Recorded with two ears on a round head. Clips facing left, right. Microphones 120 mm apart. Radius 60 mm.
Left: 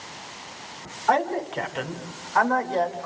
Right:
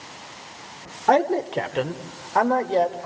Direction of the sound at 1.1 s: 45° right (ahead or behind).